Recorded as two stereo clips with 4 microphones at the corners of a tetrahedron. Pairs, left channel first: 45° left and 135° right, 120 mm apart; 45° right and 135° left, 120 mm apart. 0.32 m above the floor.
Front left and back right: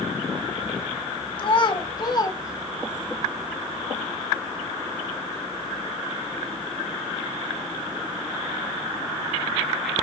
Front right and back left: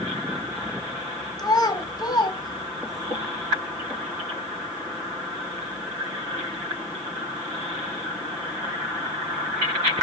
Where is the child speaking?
5° left, 1.7 m; by 3.1 s 25° right, 1.0 m.